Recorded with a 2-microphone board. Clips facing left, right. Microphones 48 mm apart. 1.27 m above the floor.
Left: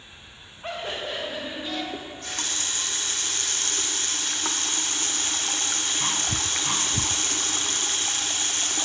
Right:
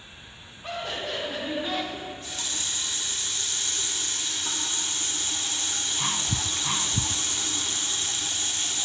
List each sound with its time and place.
0.6 s laughter: 40° left (ahead or behind), 1.6 m; by 1.8 s 10° right (ahead or behind), 1.7 m
1.9 s a running tap: 55° left (ahead or behind), 0.6 m